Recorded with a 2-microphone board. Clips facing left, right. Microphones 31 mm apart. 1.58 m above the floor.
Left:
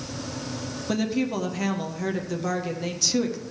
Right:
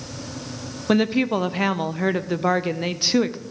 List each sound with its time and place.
0.9 s a woman speaking: 30° right (ahead or behind), 0.5 m